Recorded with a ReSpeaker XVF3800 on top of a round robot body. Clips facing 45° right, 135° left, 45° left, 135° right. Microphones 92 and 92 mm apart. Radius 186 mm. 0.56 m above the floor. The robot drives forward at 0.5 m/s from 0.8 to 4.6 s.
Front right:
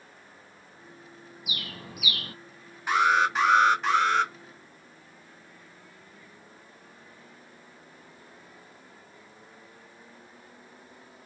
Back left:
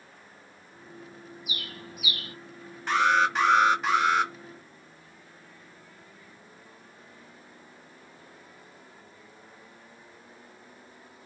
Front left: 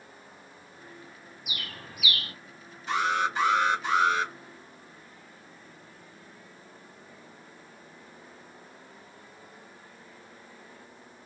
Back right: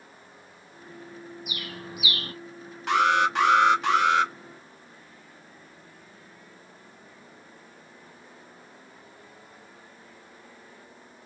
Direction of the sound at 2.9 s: 125° right.